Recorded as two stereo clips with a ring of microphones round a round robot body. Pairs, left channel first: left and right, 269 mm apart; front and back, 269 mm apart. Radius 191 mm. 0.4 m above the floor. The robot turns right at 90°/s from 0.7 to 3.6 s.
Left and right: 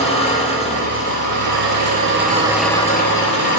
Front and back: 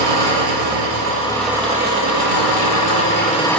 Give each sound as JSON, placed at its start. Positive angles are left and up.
{"t": 0.0, "sound": "an engine running", "azimuth_deg": -175, "distance_m": 5.5}